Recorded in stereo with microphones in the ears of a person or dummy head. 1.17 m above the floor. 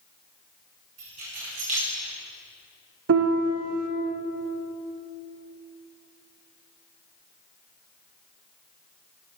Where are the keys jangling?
45° right (ahead or behind), 2 m.